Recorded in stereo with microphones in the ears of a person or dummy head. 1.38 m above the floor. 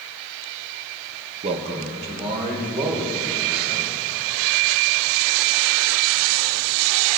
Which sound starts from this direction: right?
A man speaking, at 1.4 s.